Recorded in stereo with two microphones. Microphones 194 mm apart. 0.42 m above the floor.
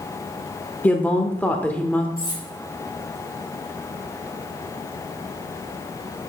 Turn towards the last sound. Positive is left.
turn(degrees=20)  # may be behind; listen again after turning